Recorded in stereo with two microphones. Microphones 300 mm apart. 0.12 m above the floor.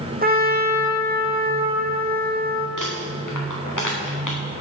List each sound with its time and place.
0.2 s a trumpet: 30° right (ahead or behind), 2 m
2.8 s crumpling: 80° left, 4 m